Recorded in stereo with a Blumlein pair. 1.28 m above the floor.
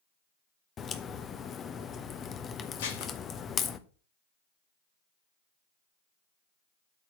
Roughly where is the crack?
Ahead left.